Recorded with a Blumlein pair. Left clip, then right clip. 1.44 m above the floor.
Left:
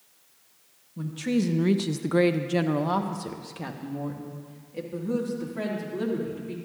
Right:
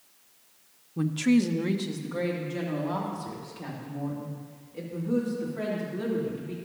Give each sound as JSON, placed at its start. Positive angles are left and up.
{"t": 1.0, "sound": "a woman speaking", "azimuth_deg": -25, "distance_m": 0.8}